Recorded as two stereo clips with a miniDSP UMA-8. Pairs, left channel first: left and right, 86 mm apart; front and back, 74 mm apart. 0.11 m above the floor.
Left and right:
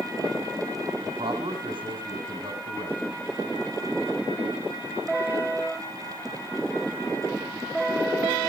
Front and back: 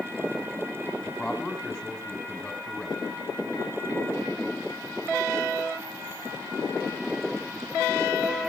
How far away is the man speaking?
About 5 m.